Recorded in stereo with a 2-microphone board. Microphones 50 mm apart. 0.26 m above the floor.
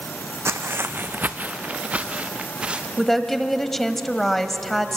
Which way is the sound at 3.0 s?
5° left (ahead or behind).